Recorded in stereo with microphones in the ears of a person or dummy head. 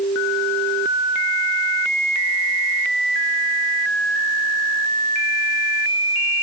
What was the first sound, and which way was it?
Only background noise.